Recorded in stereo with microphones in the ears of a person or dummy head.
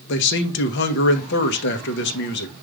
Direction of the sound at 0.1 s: 60° left (ahead or behind).